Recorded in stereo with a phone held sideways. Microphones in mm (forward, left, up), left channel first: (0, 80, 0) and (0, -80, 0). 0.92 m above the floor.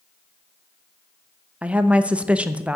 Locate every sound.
1.6 s a woman speaking: 5° right (ahead or behind), 0.6 m